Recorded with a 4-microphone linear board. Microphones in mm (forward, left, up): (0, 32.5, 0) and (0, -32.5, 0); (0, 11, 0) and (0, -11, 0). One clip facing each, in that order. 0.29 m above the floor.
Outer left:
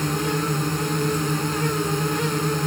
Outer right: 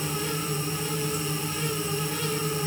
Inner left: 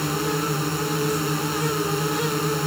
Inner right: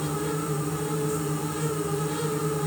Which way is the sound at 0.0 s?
60° left (ahead or behind).